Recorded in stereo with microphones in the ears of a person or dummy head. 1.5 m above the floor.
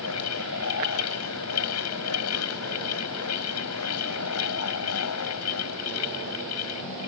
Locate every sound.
0.0 s a fan: 90° left